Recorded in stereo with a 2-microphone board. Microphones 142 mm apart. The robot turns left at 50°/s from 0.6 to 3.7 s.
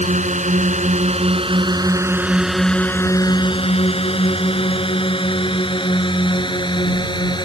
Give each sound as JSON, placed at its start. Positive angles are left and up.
{"t": 0.0, "sound": "a drone", "side_deg": -60}